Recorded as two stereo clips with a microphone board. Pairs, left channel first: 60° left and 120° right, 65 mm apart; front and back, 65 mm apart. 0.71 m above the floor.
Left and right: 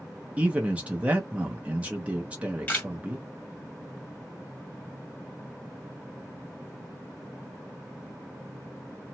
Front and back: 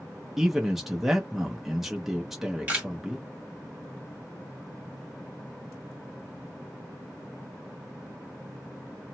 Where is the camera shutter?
120° left, 1.5 m.